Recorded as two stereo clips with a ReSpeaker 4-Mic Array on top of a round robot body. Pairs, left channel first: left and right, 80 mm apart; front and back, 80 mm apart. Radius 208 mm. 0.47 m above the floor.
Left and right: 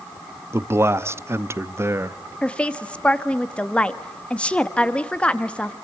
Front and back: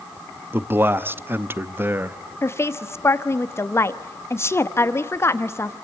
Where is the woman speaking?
25° left, 1.5 m.